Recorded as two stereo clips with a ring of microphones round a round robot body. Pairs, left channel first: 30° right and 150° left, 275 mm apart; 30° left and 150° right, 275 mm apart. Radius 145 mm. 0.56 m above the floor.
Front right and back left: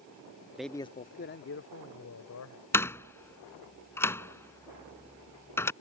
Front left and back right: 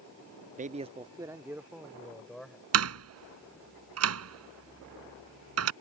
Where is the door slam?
110° right.